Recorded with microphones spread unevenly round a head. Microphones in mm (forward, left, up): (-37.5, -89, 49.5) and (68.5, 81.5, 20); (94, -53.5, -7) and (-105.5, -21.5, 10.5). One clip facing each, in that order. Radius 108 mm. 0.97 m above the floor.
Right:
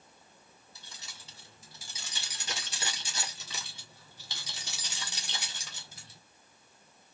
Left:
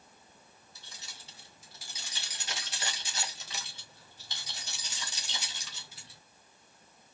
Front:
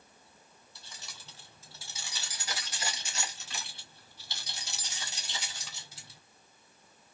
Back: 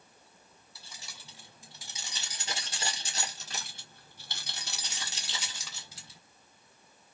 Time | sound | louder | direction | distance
0.8 | keys jangling | even, even | 105° right | 2.5 m